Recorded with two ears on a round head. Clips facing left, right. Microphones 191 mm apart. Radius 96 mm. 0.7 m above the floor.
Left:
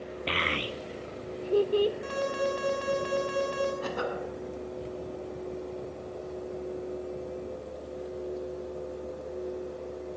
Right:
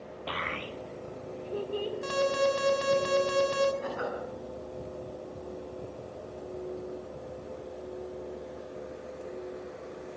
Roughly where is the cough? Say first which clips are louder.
Left 2 dB; left.